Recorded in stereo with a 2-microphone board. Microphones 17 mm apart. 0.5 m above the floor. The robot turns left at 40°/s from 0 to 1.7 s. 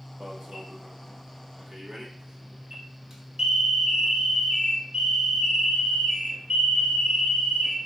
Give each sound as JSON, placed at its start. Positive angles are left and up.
{"t": 0.2, "sound": "an alarm", "azimuth_deg": -85, "distance_m": 1.1}